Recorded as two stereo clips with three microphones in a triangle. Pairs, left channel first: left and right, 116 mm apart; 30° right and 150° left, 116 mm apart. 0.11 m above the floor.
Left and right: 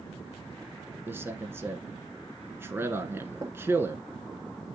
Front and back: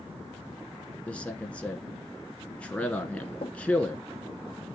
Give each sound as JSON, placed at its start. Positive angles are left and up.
{"t": 1.1, "sound": "a man speaking", "azimuth_deg": -90, "distance_m": 1.1}
{"t": 3.4, "sound": "knocking", "azimuth_deg": -35, "distance_m": 1.6}